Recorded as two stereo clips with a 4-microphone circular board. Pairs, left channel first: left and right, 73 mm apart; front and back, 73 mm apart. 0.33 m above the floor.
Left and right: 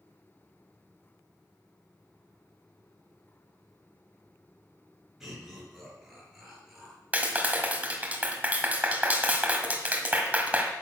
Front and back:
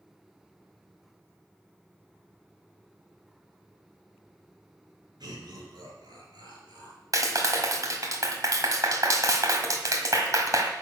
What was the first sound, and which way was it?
Laughter, 175° right.